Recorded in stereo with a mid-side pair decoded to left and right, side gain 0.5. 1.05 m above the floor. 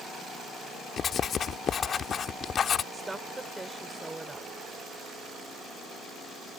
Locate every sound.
1.0 s writing: 45° left
2.9 s a woman speaking: 15° right